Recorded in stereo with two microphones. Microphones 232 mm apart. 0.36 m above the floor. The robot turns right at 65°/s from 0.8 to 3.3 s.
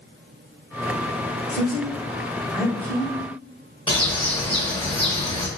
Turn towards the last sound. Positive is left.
turn(degrees=20)  # may be behind; listen again after turning